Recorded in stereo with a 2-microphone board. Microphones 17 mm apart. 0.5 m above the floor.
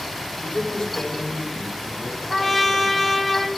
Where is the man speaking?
55° left (ahead or behind), 1.7 m; by 3.1 s 75° left (ahead or behind), 5.5 m.